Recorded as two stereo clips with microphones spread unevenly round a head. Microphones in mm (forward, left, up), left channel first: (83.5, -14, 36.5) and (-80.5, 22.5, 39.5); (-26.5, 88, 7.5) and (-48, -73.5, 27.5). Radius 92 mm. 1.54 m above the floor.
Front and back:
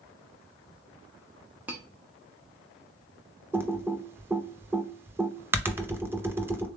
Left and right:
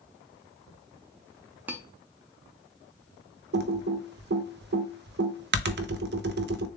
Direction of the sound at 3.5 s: 115° right.